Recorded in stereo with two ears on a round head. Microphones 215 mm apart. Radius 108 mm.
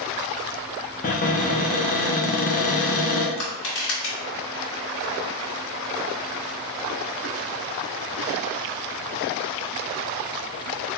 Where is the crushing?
50° left (ahead or behind), 2.0 m.